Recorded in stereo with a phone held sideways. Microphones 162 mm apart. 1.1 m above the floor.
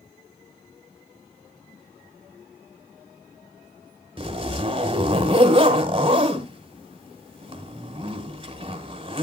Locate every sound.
4.2 s a zipper: 30° right (ahead or behind), 2 m